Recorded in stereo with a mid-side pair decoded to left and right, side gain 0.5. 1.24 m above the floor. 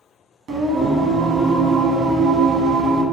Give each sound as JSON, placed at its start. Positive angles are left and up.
{"t": 0.5, "sound": "singing", "azimuth_deg": -55, "distance_m": 0.8}